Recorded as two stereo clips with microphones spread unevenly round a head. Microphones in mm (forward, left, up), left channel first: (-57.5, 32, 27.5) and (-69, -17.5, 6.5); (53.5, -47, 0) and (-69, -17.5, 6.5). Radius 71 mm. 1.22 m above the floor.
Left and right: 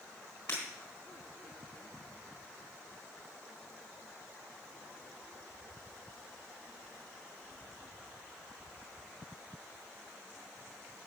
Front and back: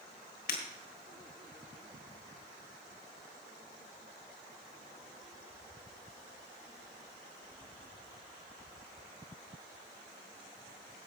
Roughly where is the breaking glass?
Ahead.